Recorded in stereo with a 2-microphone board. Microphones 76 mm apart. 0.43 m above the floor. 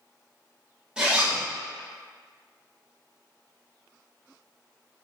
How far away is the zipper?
About 1.3 m.